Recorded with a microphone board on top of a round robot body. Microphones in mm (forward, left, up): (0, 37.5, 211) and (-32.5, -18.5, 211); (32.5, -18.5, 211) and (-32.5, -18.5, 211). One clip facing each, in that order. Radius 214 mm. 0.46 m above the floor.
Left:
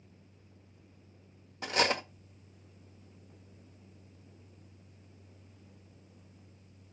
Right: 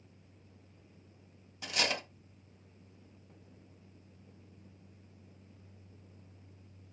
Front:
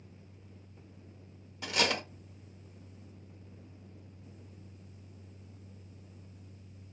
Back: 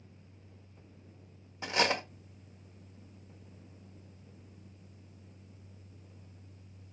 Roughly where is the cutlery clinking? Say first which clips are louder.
Left 5 dB, back 2 dB; behind left.